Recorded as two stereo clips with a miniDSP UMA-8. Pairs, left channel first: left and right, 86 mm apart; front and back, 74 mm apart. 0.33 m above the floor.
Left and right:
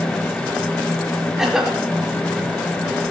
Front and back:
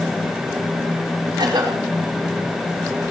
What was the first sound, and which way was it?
A cough, 175° right.